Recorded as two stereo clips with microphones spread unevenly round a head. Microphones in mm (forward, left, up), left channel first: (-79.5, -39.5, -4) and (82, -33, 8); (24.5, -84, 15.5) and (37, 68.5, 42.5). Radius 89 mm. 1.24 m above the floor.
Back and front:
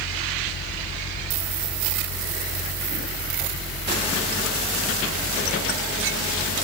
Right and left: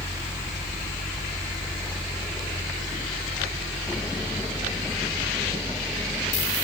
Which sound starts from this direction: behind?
A fan, at 0.0 s.